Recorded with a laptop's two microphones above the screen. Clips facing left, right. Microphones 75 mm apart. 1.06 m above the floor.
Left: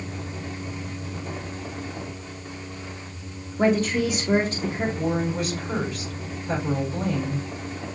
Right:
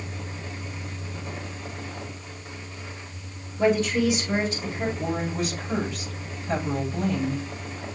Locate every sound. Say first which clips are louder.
0.0 s a fan: left 3 dB; 45° left (ahead or behind), 3 m
3.6 s a woman speaking: even; 45° left (ahead or behind), 0.9 m
5.0 s a woman speaking: left 2 dB; 60° left (ahead or behind), 3.5 m